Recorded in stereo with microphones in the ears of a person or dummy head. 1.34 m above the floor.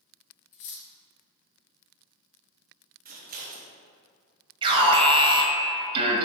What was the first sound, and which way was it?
Cutlery clinking, 40° left (ahead or behind).